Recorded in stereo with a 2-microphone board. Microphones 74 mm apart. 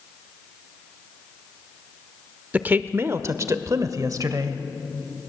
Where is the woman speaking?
20° right (ahead or behind), 0.8 m; by 4.6 s 55° right (ahead or behind), 1.6 m.